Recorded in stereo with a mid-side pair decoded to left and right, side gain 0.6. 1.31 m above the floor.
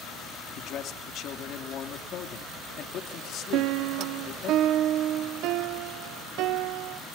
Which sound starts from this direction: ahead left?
A man speaking, at 0.6 s.